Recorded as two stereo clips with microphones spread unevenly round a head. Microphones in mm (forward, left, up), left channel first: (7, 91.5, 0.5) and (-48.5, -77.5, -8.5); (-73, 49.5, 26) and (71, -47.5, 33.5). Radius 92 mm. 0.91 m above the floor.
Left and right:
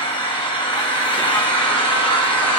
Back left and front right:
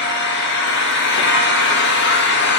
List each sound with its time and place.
0.0 s an engine running: 135° left, 1.3 m